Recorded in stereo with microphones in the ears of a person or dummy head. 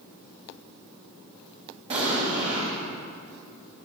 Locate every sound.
1.9 s an explosion: 30° right (ahead or behind), 0.8 m